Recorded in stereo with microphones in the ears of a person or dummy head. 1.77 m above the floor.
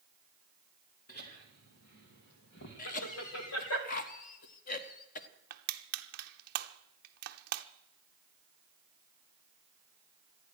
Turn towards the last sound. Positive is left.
turn(degrees=-55)  # may be behind; listen again after turning